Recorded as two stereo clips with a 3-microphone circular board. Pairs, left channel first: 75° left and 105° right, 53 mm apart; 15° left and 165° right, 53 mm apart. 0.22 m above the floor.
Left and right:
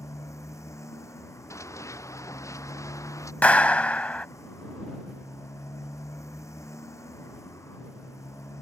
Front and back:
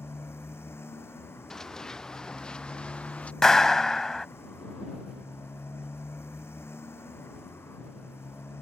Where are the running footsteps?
95° left; by 3.3 s 80° left.